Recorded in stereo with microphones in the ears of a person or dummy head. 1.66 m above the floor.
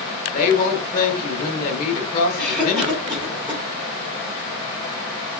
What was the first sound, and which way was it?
A woman speaking, 40° left (ahead or behind).